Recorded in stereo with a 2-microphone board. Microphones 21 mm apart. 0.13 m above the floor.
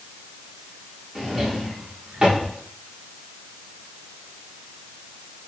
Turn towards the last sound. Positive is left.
turn(degrees=-40)  # may be behind; listen again after turning